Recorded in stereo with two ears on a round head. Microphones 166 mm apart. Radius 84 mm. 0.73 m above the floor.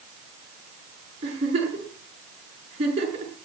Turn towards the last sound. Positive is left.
turn(degrees=-30)  # may be behind; listen again after turning